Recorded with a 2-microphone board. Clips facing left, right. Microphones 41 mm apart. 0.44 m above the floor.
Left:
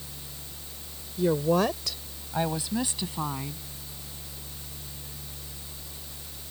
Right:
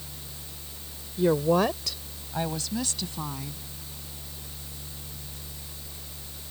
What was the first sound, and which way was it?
A woman speaking, 25° right (ahead or behind).